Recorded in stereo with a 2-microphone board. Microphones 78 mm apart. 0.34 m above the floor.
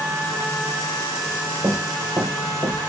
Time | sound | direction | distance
1.6 | running footsteps | 40° right (ahead or behind) | 3.5 m